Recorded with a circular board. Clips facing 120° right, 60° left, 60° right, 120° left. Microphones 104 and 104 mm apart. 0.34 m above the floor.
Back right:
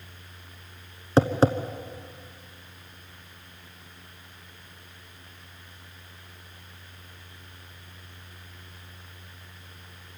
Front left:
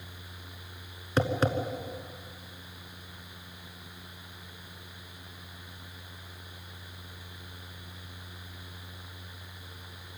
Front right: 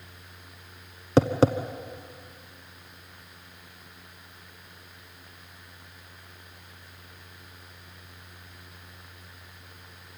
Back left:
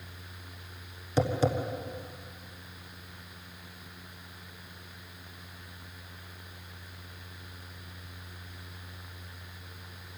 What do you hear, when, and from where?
1.2 s tapping: 60° right, 1.0 m